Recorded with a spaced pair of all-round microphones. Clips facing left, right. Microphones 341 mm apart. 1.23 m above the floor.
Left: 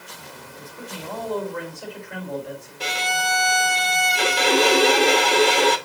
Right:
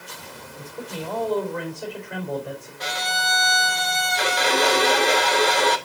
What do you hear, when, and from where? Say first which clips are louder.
0.6 s a man speaking: right 4 dB; 45° right (ahead or behind), 4 m
2.8 s a violin: left 5 dB; 40° left (ahead or behind), 0.8 m